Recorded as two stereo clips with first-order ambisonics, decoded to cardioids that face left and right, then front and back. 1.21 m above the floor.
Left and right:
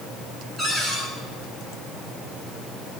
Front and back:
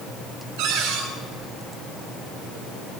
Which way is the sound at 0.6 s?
Straight behind.